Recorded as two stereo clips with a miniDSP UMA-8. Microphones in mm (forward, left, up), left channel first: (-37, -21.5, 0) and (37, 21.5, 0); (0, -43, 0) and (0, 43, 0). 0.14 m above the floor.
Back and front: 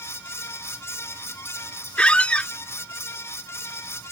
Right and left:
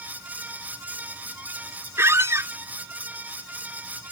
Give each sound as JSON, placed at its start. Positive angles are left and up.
{"t": 2.0, "sound": "a squeak", "azimuth_deg": 140}